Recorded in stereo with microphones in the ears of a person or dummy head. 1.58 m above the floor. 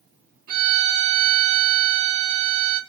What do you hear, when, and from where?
0.5 s a violin: 45° right (ahead or behind), 0.9 m